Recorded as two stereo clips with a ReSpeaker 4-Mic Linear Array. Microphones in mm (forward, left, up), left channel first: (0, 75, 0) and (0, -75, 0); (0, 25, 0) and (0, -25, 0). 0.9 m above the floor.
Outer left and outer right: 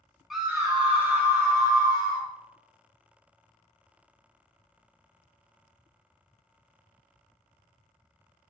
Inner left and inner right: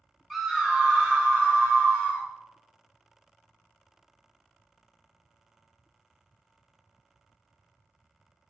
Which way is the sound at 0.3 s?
Centre (ahead or behind).